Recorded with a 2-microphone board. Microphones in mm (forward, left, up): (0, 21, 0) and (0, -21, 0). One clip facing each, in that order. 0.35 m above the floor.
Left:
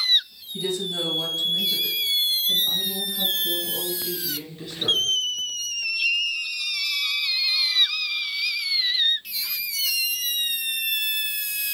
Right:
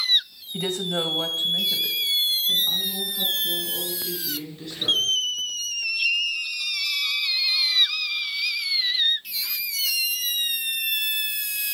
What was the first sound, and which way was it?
A woman speaking, 55° right (ahead or behind).